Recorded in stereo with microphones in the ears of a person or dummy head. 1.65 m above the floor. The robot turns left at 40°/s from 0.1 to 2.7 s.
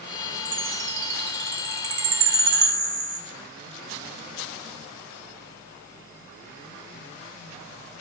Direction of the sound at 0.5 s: 20° right (ahead or behind).